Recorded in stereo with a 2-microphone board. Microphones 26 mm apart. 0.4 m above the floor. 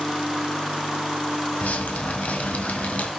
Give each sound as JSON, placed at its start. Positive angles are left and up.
{"t": 1.6, "sound": "dripping", "side_deg": 70, "distance_m": 1.9}